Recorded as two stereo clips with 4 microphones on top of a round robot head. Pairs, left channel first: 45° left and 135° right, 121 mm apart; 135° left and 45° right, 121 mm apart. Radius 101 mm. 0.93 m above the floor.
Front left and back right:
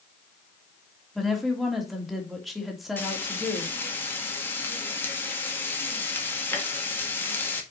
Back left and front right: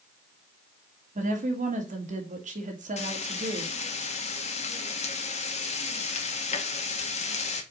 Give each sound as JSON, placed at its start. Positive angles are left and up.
{"t": 1.1, "sound": "a woman speaking", "azimuth_deg": -45, "distance_m": 3.0}
{"t": 3.0, "sound": "frying", "azimuth_deg": 115, "distance_m": 2.0}